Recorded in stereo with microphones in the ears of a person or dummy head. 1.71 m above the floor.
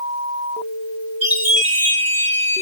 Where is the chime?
35° right (ahead or behind), 2.0 m.